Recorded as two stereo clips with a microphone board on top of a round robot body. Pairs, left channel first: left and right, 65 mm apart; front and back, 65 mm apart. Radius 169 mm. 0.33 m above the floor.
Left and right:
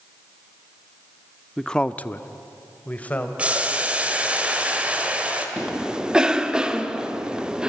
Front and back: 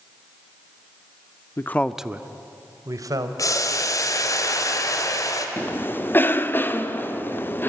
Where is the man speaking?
10° left, 1.0 m; by 3.3 s 155° left, 2.5 m.